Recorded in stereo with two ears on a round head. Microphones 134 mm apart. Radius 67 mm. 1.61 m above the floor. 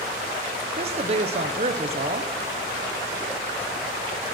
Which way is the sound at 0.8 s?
40° right (ahead or behind).